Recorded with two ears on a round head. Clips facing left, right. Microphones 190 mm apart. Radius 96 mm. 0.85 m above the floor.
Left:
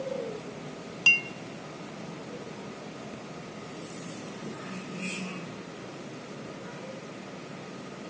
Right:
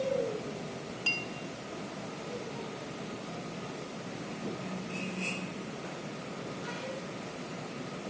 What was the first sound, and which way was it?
A clink, 75° left (ahead or behind).